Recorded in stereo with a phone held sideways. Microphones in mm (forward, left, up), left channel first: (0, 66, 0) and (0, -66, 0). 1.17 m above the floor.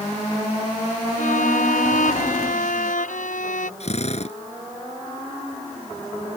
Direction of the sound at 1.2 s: 90° left.